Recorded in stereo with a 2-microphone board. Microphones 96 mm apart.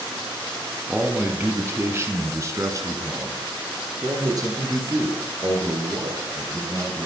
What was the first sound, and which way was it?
A man speaking, 15° right (ahead or behind).